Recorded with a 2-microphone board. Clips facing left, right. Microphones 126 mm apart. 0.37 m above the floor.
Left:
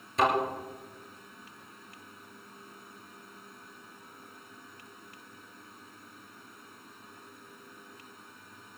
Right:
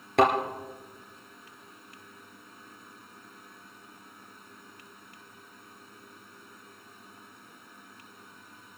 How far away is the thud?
About 3 m.